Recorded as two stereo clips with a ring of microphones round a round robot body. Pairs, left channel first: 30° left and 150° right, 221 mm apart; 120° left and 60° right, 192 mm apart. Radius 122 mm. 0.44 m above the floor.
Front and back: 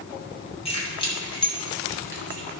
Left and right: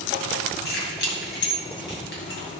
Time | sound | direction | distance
0.7 | keys jangling | 95° left | 3 m